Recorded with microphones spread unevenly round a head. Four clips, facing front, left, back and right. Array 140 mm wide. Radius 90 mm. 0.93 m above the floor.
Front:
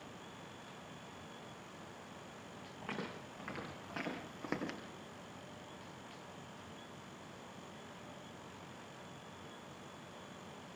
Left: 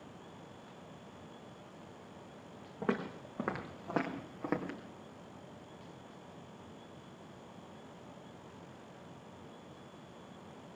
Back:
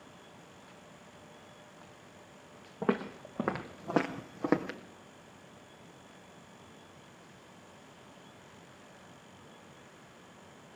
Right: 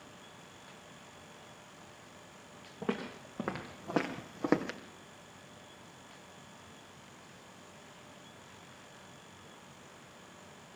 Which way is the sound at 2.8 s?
165° left.